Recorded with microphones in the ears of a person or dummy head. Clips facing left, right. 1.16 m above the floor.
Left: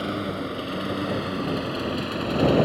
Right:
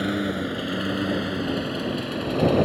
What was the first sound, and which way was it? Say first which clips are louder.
A lawn mower: right 3 dB; 15° right (ahead or behind).